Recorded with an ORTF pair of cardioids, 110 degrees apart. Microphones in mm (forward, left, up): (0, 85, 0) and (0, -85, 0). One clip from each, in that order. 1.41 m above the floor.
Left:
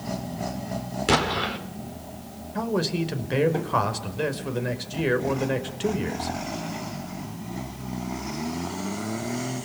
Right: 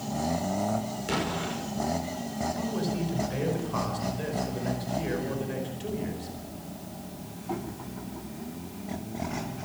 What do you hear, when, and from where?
1.1 s an explosion: 60° left, 4.5 m
2.5 s a man speaking: 60° left, 5 m